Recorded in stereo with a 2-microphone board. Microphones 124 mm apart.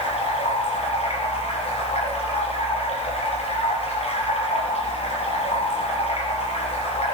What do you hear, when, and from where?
0.0 s running water: 55° left (ahead or behind), 4.5 m